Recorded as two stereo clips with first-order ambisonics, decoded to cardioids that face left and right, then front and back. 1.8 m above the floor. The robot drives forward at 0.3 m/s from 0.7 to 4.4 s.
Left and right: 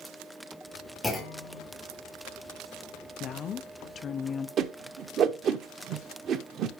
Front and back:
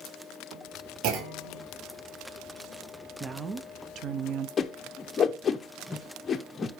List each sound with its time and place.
1.0 s a clunk: 170° left, 2.0 m
3.2 s a woman speaking: 115° left, 0.5 m; by 4.5 s 150° left, 0.7 m
4.6 s a whoosh: 60° right, 0.7 m